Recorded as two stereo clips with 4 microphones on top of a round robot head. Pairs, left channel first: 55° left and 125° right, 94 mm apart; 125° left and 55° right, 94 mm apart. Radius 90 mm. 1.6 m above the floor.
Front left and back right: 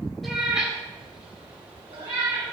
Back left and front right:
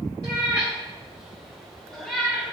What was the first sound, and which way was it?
A cat meowing, 35° right.